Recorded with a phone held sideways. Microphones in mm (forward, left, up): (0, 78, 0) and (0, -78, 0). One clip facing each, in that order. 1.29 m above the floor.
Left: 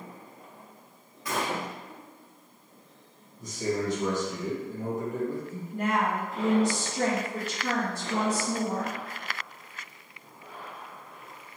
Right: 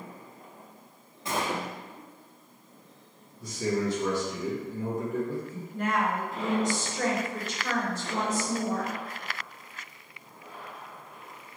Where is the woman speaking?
85° left, 1.8 m.